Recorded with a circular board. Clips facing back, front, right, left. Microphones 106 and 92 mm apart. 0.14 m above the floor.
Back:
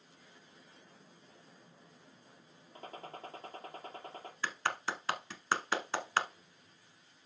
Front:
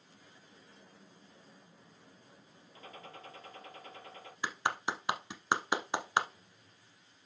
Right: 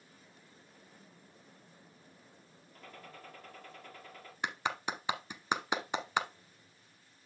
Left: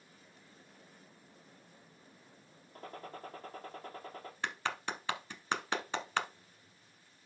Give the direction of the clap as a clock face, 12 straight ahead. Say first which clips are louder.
Front 2 dB, right 2 dB; 1 o'clock.